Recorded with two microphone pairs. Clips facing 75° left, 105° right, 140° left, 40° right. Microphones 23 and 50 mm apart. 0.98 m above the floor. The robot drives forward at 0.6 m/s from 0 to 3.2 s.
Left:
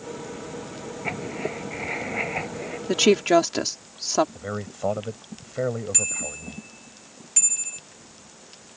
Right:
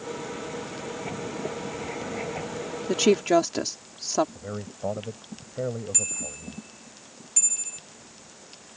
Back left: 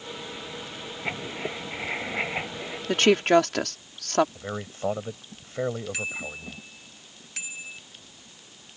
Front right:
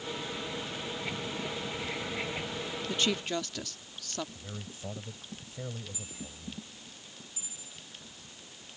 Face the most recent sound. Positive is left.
turn(degrees=140)